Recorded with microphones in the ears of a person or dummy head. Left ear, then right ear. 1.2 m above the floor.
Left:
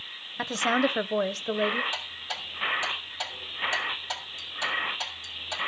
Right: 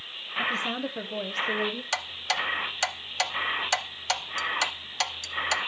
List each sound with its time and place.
0.4 s a woman speaking: 60° left (ahead or behind), 0.8 m; by 1.8 s 5° left (ahead or behind), 0.6 m
1.9 s ticking: 75° right (ahead or behind), 0.8 m